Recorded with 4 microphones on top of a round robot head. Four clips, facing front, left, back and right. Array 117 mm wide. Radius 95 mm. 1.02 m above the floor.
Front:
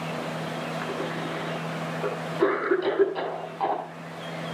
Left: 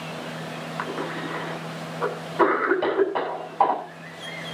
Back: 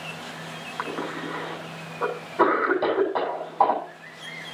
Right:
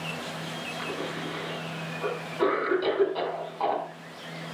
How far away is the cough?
About 8.5 m.